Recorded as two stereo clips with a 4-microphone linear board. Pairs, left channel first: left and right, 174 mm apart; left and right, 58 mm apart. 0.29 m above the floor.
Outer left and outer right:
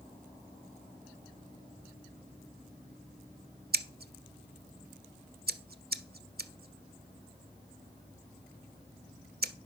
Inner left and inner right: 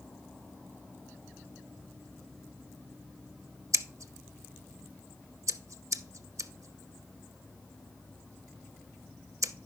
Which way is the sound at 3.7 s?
60° right (ahead or behind).